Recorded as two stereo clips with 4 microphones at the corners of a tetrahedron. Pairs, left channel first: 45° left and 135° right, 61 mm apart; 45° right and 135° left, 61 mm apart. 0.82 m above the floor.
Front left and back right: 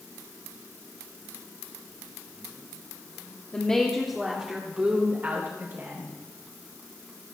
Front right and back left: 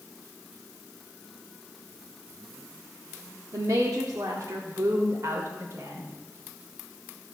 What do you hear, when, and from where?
3.5 s a woman speaking: 115° left, 1.3 m; by 6.1 s 175° left, 3 m